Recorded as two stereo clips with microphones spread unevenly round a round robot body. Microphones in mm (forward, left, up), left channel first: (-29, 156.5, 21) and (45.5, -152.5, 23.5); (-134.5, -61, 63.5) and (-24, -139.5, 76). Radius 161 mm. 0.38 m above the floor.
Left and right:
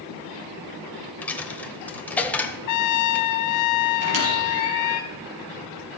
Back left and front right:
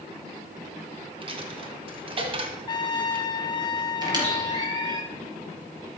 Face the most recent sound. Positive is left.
turn(degrees=-95)